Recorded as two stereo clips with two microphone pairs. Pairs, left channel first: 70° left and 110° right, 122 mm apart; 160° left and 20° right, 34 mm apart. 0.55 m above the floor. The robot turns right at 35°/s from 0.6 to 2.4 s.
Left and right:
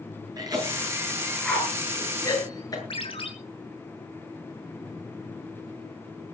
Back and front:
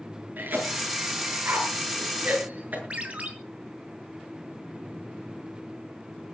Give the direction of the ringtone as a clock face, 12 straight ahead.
11 o'clock.